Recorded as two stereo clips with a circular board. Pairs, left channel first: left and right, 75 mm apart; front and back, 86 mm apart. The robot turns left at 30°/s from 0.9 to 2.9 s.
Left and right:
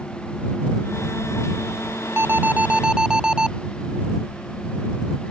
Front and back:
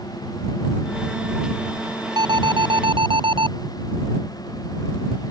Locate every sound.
2.2 s an alarm: 145° right; by 3.5 s 170° right